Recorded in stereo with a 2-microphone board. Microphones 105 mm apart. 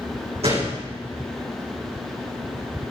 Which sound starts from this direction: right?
A gunshot, at 0.4 s.